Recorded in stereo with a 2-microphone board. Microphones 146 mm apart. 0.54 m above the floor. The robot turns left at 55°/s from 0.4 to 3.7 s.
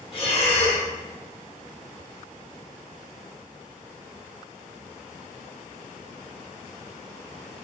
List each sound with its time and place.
0.1 s breathing: 40° left (ahead or behind), 1.2 m; by 0.9 s 50° left (ahead or behind), 1.2 m